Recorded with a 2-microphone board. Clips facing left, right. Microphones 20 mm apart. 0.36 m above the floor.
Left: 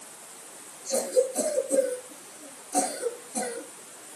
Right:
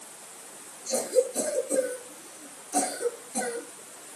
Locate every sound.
0.9 s a cough: 25° right (ahead or behind), 5.5 m